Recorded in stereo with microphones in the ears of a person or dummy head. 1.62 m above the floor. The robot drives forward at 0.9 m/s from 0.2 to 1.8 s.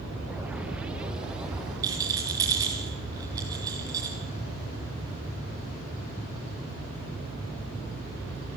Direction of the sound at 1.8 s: 10° right (ahead or behind).